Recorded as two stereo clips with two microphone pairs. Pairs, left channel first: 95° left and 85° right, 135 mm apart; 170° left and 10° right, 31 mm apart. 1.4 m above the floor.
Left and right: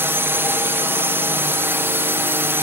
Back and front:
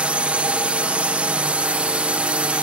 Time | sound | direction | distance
0.0 | a drone | 20° right | ?